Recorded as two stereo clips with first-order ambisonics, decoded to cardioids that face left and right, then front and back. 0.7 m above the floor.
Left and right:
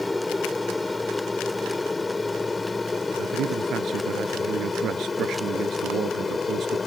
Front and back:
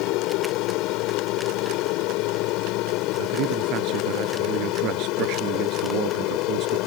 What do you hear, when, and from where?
0.0 s an aircraft: 5° left; by 6.9 s 15° left
3.2 s a man speaking: 140° right